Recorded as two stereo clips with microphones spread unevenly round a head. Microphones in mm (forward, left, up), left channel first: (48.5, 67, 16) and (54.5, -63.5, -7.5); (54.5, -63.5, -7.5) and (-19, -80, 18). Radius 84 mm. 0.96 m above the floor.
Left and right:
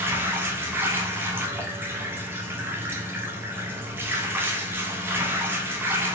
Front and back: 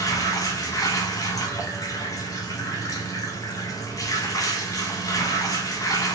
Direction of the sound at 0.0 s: 15° right.